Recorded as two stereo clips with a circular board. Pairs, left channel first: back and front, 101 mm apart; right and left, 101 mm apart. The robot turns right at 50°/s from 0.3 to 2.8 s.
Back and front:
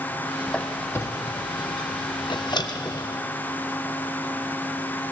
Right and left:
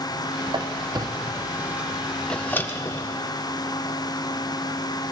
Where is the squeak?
100° left, 0.6 m; by 3.2 s 145° right, 0.6 m.